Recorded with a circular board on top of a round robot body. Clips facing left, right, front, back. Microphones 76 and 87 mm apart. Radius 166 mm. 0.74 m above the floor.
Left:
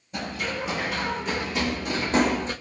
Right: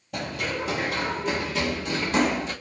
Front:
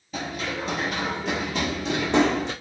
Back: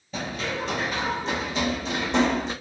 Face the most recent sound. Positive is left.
turn(degrees=30)